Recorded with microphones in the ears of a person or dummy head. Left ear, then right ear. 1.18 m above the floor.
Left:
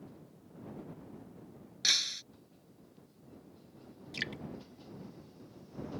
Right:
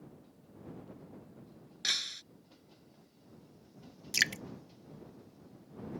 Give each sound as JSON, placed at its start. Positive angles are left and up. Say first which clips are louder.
{"t": 1.8, "sound": "breaking glass", "louder": "left 4 dB", "side_deg": -5}
{"t": 4.1, "sound": "dripping", "louder": "right 9 dB", "side_deg": -45}